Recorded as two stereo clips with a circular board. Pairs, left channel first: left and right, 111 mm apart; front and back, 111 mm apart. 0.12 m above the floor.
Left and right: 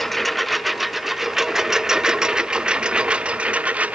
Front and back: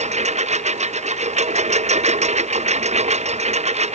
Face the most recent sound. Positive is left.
turn(degrees=-165)